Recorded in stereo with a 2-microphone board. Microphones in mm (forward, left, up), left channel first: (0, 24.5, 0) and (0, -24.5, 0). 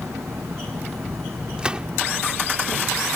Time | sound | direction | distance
0.0 | an engine running | 85° right | ?
1.6 | a gunshot | 20° right (ahead or behind) | ?